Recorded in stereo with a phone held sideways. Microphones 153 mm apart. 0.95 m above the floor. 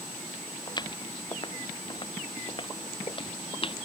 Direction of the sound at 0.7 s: 30° left (ahead or behind).